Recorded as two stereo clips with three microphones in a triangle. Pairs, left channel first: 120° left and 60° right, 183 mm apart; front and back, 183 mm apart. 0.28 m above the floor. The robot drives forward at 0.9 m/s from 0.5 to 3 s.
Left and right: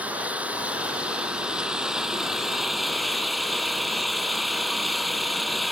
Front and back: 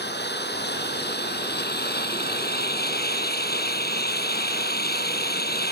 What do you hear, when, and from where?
0.0 s an engine running: 20° left; by 5.7 s 30° left